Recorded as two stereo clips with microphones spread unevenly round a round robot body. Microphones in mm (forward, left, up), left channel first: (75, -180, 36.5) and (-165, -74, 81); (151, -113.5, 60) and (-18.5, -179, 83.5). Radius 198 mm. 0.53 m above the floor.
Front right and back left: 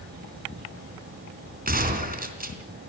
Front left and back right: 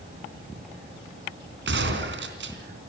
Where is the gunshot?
145° right, 3.5 m.